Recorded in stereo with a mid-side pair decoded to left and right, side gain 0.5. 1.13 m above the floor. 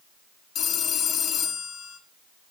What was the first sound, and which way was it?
A phone ringing, 60° left.